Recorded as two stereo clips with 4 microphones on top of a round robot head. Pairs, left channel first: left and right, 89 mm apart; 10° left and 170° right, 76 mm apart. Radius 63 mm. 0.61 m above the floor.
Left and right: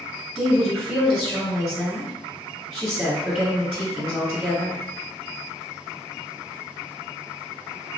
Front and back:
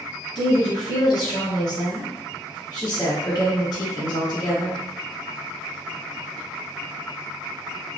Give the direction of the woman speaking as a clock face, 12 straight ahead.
1 o'clock.